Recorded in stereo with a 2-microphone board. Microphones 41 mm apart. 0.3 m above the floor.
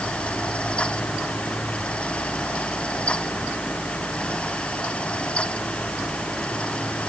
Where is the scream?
No scream in this recording.